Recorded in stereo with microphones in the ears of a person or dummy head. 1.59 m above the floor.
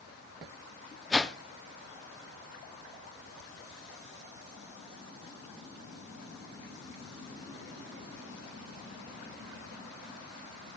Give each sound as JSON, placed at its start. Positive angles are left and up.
{"t": 1.1, "sound": "a whoosh", "side_deg": 5, "distance_m": 0.6}